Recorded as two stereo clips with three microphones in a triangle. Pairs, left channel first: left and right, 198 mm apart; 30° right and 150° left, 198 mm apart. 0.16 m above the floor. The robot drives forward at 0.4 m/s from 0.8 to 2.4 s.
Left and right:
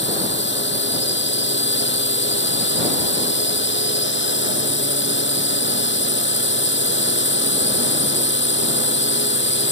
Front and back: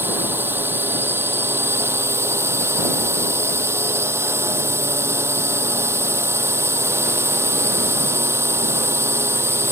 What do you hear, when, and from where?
0.0 s a drone: 70° left; by 9.7 s 75° left